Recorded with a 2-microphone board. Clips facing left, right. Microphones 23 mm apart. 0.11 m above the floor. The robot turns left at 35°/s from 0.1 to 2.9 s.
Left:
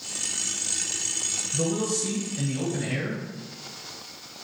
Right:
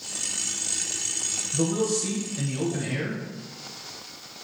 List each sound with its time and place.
1.5 s a man speaking: 10° right (ahead or behind), 1.5 m; by 3.2 s 10° left (ahead or behind), 1.5 m